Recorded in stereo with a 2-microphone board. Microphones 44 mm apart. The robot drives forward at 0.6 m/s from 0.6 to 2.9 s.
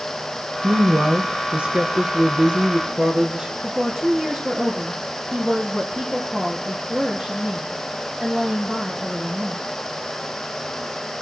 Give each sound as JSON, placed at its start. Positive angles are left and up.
{"t": 0.6, "sound": "a woman speaking", "side_deg": -30, "distance_m": 1.7}
{"t": 3.6, "sound": "a woman speaking", "side_deg": -20, "distance_m": 4.0}